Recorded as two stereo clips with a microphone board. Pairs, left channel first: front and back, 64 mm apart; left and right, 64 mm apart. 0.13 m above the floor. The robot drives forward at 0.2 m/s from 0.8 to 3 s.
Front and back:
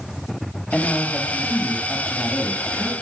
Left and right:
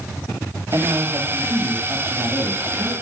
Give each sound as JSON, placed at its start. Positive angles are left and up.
{"t": 0.7, "sound": "a man speaking", "azimuth_deg": -80, "distance_m": 3.0}